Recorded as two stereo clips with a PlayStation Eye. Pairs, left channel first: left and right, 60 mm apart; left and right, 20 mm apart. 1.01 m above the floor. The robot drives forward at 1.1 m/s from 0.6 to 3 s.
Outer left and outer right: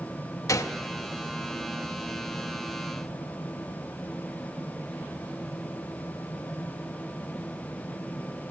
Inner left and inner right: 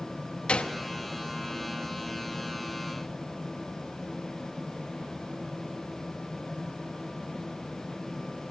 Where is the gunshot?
70° left (ahead or behind), 0.7 m; by 0.8 s 80° left, 0.6 m.